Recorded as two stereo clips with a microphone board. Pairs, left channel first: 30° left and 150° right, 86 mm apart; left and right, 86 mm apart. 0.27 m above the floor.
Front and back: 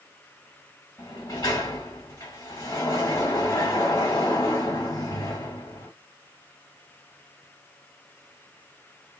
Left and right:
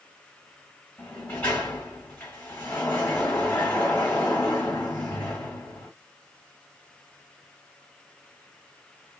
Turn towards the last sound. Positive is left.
turn(degrees=30)